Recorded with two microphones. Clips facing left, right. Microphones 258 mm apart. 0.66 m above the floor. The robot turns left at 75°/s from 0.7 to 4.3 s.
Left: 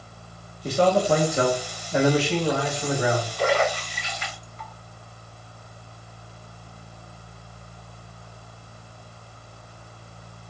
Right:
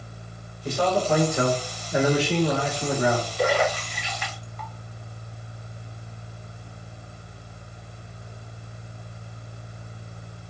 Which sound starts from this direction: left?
A man speaking, at 0.6 s.